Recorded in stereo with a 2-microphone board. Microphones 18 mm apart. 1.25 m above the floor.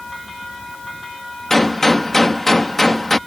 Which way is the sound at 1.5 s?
20° left (ahead or behind).